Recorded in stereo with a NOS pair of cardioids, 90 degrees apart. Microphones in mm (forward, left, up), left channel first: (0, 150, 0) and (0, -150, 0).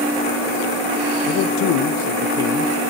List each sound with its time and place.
1.3 s a man speaking: 65° left, 0.6 m